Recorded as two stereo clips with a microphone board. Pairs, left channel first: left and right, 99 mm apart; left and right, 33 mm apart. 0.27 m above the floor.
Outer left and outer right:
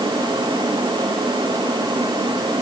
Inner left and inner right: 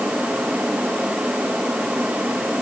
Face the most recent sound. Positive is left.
No sound to turn to.